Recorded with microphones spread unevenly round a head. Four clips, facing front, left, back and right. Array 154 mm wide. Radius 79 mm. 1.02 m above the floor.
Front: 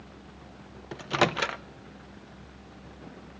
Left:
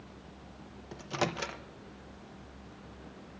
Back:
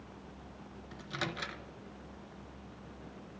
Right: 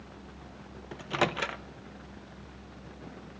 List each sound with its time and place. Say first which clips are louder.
0.9 s a microwave: right 4 dB, front 14 dB; 15° right, 0.7 m